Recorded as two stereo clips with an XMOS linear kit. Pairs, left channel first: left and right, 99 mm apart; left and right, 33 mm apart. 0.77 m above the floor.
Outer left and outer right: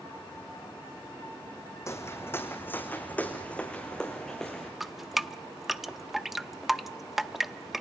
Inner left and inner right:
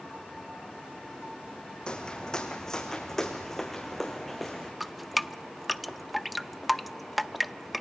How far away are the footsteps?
About 2.5 m.